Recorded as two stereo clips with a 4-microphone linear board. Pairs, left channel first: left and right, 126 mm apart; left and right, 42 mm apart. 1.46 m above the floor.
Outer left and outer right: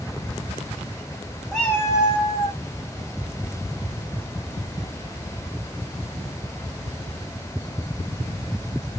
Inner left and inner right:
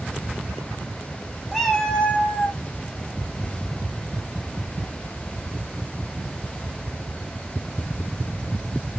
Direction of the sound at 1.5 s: Centre (ahead or behind).